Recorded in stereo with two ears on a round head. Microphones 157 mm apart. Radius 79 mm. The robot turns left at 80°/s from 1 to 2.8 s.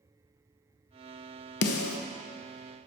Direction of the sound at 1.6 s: 65° left (ahead or behind).